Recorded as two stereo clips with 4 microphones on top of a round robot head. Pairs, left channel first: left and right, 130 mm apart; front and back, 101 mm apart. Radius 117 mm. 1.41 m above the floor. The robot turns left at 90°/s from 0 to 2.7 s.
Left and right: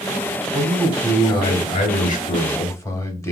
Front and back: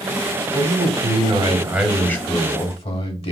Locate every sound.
0.5 s a man speaking: 145° right, 1.1 m; by 3.3 s 20° left, 1.1 m